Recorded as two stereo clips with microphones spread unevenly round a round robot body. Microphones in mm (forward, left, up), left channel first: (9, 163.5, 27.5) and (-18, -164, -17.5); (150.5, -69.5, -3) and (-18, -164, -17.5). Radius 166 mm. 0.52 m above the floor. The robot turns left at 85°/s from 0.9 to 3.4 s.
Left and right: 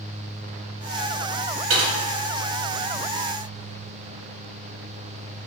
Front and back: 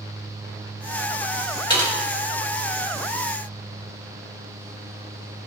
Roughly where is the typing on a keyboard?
Ahead right.